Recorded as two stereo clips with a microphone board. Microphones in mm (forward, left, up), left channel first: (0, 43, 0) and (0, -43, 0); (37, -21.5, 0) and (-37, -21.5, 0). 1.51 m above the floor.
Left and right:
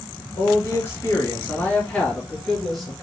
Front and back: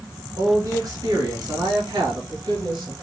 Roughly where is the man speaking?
Behind left.